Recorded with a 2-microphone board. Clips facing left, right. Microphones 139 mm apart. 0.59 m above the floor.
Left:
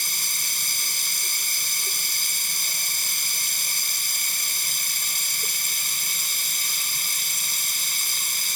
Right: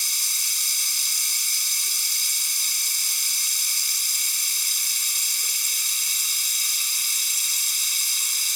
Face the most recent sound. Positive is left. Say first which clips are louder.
# left 5 dB
turn(degrees=60)  # may be behind; listen again after turning